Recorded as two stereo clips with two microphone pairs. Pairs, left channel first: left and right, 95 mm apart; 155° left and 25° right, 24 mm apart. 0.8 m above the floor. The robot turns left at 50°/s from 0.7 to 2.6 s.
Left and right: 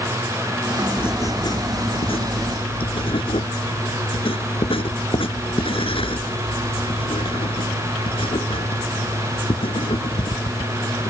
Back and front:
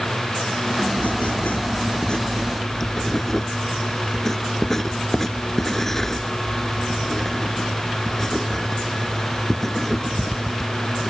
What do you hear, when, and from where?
1.0 s writing: 160° left; by 11.1 s 75° left